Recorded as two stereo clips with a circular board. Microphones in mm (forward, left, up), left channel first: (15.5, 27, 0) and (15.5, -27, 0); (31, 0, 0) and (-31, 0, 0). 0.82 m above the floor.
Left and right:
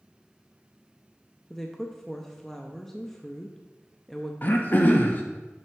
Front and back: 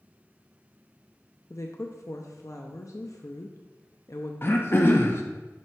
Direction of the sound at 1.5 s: 5° left.